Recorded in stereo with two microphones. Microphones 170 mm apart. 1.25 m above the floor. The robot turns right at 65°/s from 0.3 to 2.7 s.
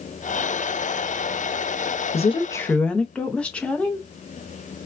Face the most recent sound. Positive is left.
turn(degrees=175)